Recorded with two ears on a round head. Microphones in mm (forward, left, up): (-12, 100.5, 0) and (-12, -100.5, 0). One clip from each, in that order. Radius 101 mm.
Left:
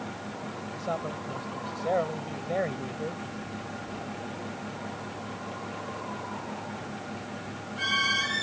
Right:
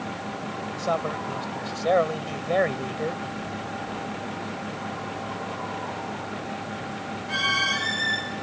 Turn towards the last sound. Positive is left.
turn(degrees=-55)  # may be behind; listen again after turning